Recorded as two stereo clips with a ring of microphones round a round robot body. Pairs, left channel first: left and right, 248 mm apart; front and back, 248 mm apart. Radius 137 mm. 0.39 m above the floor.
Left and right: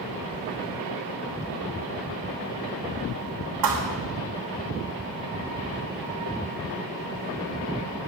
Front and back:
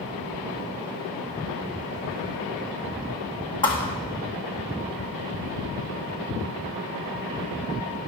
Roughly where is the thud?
Right.